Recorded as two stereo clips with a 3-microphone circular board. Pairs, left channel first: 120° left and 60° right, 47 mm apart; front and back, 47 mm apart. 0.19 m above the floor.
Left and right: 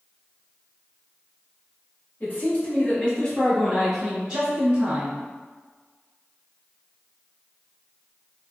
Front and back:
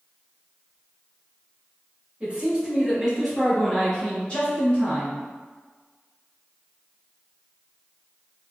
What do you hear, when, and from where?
2.2 s a man speaking: 130° left, 1.3 m; by 5.2 s 30° right, 1.2 m